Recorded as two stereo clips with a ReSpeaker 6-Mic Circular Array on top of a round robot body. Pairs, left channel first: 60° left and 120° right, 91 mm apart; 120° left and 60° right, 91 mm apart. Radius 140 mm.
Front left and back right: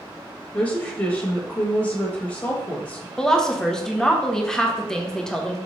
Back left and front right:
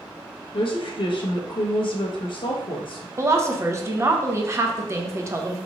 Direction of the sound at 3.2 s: 20° right.